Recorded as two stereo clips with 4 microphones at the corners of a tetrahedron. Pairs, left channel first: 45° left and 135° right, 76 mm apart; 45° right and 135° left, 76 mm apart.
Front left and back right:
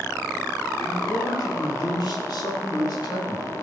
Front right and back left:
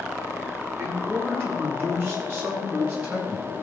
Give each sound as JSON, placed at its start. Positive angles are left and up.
{"t": 0.8, "sound": "a man speaking", "azimuth_deg": 85, "distance_m": 5.5}